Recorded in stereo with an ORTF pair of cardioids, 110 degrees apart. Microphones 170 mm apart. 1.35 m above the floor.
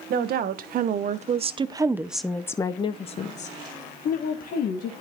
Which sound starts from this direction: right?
A woman speaking, at 0.1 s.